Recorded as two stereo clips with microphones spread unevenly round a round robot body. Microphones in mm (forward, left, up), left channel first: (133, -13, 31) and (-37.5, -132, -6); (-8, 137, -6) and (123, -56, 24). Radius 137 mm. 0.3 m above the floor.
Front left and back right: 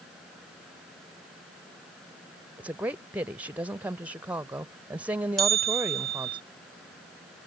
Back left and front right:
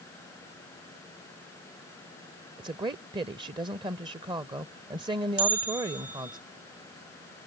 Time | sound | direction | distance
2.6 | a woman speaking | 110° right | ?
5.4 | a bell | 60° right | ?